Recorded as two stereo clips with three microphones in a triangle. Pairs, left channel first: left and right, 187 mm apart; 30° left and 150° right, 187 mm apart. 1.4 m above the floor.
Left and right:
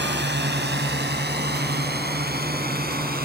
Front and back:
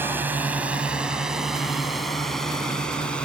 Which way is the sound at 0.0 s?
70° right.